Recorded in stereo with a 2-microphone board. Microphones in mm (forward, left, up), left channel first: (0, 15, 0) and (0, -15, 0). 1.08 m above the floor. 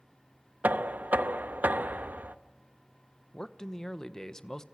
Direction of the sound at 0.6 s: 75° right (ahead or behind).